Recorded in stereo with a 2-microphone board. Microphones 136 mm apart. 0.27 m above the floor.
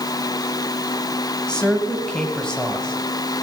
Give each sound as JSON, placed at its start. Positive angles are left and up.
{"t": 1.5, "sound": "a woman speaking", "side_deg": 5, "distance_m": 1.6}